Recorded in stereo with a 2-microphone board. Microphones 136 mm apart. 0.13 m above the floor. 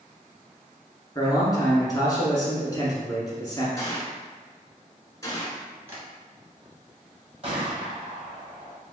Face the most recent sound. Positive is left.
turn(degrees=-45)  # may be behind; listen again after turning